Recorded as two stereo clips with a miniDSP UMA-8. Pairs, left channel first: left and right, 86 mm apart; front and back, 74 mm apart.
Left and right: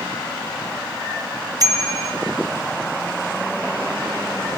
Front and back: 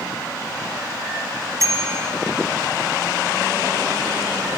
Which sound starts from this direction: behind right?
A bicycle bell, at 1.6 s.